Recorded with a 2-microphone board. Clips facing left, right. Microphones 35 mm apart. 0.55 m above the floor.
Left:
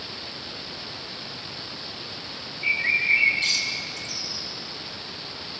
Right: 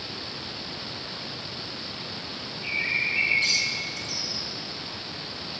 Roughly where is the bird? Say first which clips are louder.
Left 4 dB; centre.